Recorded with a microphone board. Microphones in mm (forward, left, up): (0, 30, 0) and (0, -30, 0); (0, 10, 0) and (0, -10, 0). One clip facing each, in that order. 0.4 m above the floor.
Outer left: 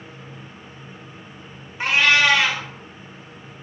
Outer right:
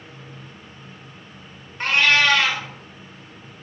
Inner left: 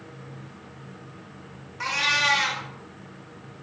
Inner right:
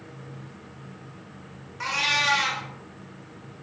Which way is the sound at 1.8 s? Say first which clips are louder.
Outer left 1 dB, inner left 1 dB; 10° left (ahead or behind).